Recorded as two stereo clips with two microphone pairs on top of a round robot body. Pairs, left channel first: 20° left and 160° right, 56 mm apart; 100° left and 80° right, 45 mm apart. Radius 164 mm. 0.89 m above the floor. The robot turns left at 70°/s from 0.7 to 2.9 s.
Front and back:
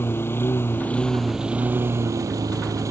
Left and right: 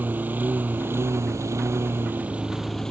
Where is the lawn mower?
30° right; by 2.9 s 175° left.